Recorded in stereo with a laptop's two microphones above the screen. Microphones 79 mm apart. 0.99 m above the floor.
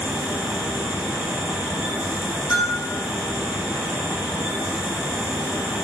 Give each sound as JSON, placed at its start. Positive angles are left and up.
{"t": 0.0, "sound": "a fan", "side_deg": -15, "distance_m": 0.9}
{"t": 2.5, "sound": "a bell", "side_deg": 65, "distance_m": 1.4}